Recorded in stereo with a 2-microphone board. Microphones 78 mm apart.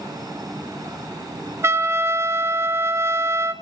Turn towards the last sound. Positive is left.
turn(degrees=-35)  # may be behind; listen again after turning